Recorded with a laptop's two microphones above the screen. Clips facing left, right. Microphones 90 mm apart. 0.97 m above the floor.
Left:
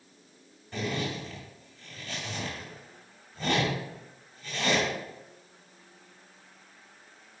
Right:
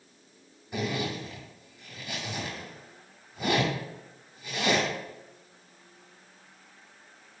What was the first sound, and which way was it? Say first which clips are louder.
A zipper: right 1 dB; 10° right (ahead or behind).